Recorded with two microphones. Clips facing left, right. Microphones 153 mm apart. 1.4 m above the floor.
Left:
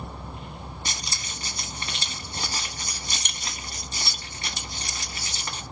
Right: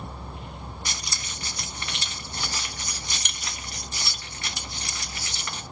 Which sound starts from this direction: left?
Keys jangling, at 0.8 s.